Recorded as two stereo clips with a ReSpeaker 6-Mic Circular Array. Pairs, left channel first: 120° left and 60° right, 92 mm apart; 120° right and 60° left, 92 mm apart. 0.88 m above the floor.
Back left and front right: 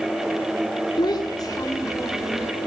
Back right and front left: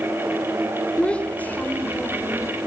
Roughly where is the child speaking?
Behind.